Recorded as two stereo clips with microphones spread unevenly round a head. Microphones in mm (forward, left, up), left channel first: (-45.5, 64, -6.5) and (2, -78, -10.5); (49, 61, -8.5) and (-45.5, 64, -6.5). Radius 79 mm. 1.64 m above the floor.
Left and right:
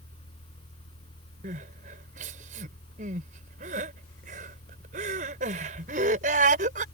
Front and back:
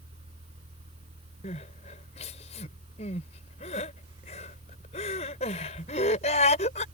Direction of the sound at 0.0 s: 160° left.